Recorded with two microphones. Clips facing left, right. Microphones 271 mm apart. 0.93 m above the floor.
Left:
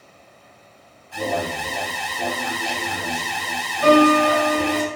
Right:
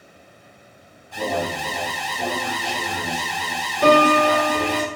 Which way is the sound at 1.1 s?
15° left (ahead or behind).